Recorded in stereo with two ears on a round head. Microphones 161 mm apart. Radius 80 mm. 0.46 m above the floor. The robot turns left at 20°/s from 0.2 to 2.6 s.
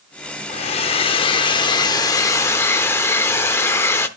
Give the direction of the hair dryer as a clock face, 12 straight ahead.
10 o'clock.